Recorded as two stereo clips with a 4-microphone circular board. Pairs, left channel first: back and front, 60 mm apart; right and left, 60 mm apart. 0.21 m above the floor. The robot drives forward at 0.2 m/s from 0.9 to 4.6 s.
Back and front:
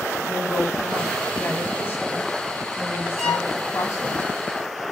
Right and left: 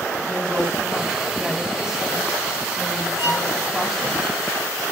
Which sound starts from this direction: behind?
A woman speaking, at 0.2 s.